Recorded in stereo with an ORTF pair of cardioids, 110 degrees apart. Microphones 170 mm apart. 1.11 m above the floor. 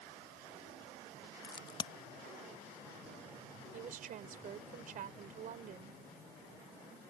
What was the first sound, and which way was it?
A crack, 25° left.